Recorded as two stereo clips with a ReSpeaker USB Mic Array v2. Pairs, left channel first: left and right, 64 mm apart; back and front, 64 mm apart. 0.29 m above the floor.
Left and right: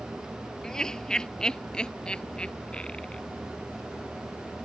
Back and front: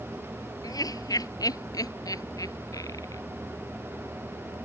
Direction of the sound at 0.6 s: 170° left.